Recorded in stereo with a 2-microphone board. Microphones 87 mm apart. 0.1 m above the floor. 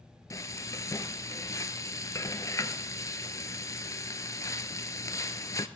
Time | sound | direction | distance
0.3 | frying | 35° left (ahead or behind) | 0.8 m